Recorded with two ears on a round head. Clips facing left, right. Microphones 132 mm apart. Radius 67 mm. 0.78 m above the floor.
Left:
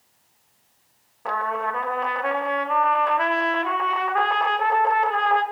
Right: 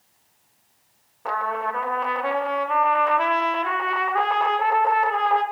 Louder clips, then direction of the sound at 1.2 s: Even; centre (ahead or behind).